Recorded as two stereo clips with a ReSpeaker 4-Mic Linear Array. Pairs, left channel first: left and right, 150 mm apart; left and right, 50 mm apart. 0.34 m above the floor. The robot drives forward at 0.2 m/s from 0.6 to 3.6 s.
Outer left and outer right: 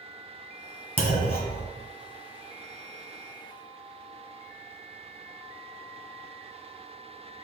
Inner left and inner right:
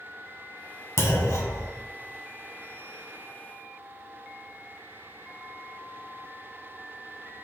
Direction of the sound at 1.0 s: 80° left.